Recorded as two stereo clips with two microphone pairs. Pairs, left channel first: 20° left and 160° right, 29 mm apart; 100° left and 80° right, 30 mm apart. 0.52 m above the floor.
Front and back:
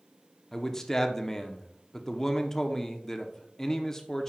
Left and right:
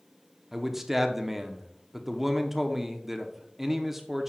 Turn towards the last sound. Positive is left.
turn(degrees=-20)